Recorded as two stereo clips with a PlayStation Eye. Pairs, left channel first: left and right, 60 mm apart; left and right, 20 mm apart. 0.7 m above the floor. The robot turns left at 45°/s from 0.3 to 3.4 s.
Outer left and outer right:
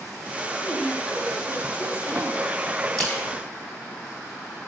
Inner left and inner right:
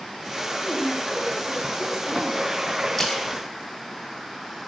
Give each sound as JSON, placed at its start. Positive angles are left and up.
{"t": 0.6, "sound": "a woman speaking", "azimuth_deg": 10, "distance_m": 5.0}
{"t": 3.0, "sound": "a splash", "side_deg": 10, "distance_m": 5.5}